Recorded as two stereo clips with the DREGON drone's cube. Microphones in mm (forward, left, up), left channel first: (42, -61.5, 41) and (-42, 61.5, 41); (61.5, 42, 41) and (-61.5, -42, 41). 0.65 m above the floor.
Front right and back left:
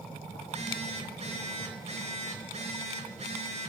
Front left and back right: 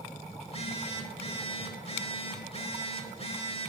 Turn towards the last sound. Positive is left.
turn(degrees=80)